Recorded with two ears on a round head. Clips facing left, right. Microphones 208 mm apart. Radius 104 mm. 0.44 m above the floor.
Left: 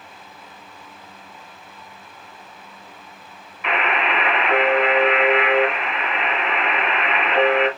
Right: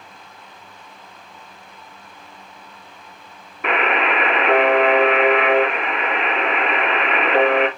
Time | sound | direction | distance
3.6 | a buzzer | 40° right (ahead or behind) | 2.5 m